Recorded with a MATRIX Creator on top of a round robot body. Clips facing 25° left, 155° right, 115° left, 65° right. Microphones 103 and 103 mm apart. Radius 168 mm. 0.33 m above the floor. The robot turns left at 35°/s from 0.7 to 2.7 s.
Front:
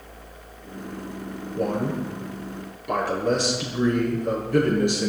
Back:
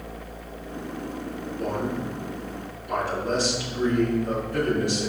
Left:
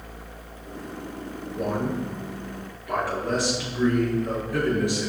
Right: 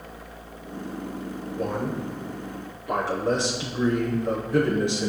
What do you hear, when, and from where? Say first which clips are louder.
1.6 s a man speaking: front 4 dB, left 2 dB; 35° left, 8.5 m; by 5.1 s 5° right, 8.5 m